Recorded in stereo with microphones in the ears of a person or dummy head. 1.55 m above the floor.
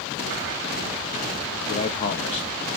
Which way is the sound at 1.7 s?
30° left (ahead or behind).